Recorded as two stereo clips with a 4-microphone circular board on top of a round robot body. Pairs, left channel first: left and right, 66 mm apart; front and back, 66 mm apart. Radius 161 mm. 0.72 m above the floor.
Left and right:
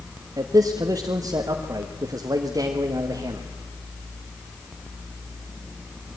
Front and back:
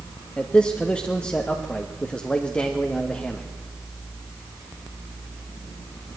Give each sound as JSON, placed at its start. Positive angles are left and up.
{"t": 0.4, "sound": "a man speaking", "azimuth_deg": -70, "distance_m": 1.6}